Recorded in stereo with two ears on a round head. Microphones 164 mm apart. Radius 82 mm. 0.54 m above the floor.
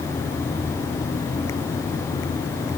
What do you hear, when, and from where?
Only background noise.